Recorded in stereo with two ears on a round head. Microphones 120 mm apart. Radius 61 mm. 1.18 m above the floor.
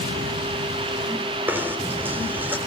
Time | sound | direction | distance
1.5 | knocking | 15° right (ahead or behind) | 4 m